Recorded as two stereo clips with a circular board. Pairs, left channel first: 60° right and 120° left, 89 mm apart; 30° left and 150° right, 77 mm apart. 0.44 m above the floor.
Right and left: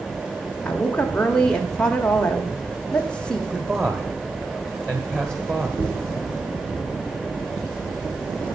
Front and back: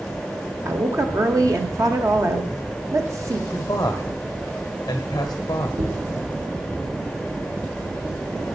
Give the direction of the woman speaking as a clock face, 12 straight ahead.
5 o'clock.